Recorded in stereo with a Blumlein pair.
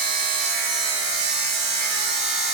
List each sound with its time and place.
0.0 s a machine running: 30° right, 6 m